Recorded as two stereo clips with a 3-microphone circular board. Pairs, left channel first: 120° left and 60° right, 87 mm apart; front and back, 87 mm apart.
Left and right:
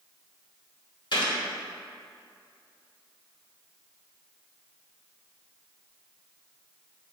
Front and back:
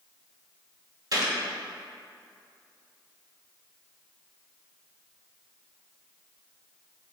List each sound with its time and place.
1.1 s a gunshot: 145° left, 1.6 m